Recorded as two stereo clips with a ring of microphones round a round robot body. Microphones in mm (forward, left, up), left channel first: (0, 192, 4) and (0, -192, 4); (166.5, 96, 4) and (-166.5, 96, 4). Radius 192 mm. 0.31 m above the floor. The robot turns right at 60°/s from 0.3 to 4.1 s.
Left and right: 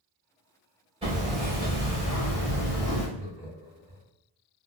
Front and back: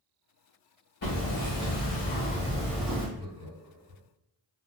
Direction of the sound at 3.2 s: 135° left.